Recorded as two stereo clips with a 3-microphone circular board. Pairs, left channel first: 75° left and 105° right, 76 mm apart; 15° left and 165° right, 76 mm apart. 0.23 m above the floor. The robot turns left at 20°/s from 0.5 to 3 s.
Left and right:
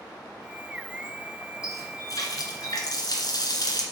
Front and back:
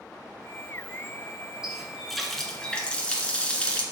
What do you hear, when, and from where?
1.6 s a running tap: 115° left, 1.9 m; by 3.8 s 90° left, 1.9 m